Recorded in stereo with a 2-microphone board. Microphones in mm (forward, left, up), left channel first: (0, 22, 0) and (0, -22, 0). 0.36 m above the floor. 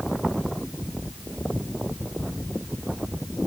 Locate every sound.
Only background noise.